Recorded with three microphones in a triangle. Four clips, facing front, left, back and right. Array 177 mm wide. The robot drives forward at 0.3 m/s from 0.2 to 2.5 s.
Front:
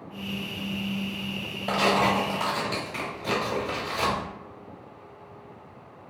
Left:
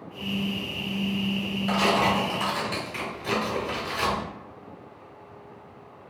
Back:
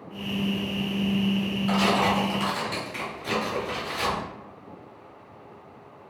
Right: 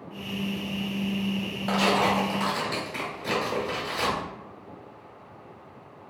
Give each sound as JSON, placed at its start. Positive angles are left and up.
{"t": 1.7, "sound": "tearing paper", "azimuth_deg": -25, "distance_m": 1.1}